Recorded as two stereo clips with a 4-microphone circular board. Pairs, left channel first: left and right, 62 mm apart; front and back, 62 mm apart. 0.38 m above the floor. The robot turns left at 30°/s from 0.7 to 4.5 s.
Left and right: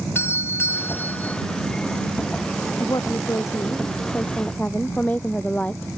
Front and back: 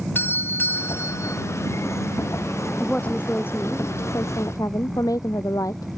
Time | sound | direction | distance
0.1 | a doorbell | 50° left | ?
2.8 | a woman speaking | 75° left | ?